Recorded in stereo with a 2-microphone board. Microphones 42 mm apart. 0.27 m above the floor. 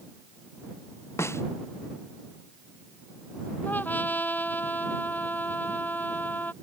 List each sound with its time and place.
1.2 s a snare drum: 70° left (ahead or behind)
3.6 s a trumpet: 40° left (ahead or behind)